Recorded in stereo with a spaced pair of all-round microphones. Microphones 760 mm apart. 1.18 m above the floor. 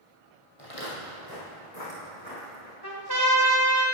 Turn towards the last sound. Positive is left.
turn(degrees=30)  # may be behind; listen again after turning